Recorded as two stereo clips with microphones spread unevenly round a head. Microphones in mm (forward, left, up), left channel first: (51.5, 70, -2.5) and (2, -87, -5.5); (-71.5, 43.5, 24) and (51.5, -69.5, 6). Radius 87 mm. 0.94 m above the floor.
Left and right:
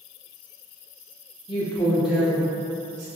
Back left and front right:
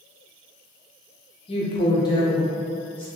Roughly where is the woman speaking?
Left.